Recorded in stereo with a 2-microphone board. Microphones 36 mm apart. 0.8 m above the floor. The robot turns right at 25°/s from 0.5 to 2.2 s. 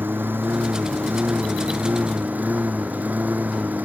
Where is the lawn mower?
100° right; by 3.9 s 55° right.